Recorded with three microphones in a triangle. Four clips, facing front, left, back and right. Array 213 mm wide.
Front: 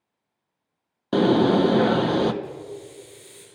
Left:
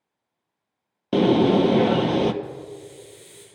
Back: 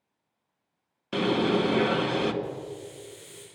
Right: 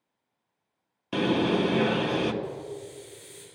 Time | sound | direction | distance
1.1 | a bird | 60° left | 0.9 m
2.4 | a hiss | 145° left | 8 m